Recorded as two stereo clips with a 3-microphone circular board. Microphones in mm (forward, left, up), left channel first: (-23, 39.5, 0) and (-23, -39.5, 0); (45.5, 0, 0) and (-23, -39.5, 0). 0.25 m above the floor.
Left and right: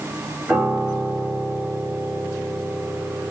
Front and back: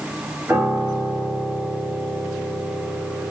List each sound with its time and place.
0.5 s a piano: 165° right, 1.6 m